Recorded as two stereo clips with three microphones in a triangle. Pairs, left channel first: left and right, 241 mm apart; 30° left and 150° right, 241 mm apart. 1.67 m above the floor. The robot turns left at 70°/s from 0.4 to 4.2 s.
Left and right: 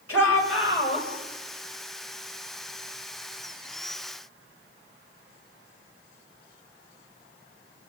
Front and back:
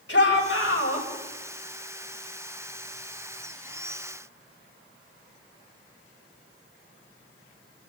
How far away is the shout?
About 7 m.